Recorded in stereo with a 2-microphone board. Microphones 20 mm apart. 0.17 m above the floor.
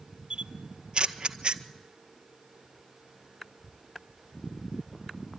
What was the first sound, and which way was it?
A camera shutter, 50° right (ahead or behind).